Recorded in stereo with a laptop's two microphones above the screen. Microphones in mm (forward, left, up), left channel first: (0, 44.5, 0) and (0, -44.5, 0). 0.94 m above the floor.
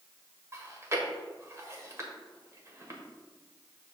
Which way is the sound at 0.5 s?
35° right (ahead or behind).